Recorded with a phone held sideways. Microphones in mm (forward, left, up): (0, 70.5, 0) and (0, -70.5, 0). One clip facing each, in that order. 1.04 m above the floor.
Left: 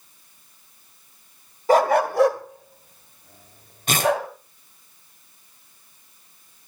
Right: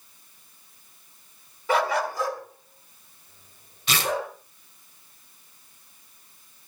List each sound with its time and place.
1.7 s a dog barking: 35° left (ahead or behind), 1.7 m; by 4.3 s 70° left (ahead or behind), 4 m
3.9 s tearing paper: 45° left (ahead or behind), 3 m